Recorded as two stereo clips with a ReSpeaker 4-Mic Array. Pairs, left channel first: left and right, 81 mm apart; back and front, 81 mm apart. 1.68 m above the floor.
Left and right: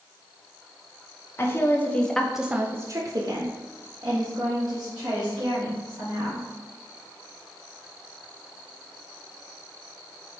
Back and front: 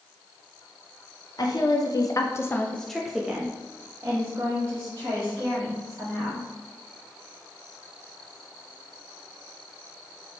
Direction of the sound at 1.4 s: 150° left.